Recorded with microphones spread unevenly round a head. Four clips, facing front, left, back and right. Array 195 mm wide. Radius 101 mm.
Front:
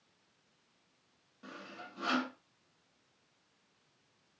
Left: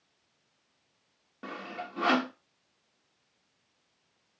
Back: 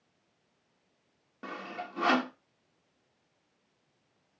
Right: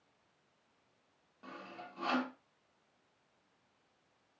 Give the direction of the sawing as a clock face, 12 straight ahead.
8 o'clock.